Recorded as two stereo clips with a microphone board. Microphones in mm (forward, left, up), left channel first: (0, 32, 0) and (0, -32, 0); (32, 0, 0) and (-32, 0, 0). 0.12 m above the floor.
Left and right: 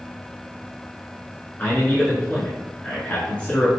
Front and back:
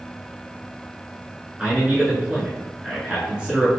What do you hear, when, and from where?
1.6 s a man speaking: 125° left, 1.1 m